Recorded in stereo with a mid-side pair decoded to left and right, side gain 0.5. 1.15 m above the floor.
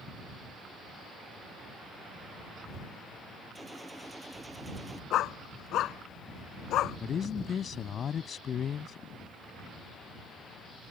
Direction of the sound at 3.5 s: Straight ahead.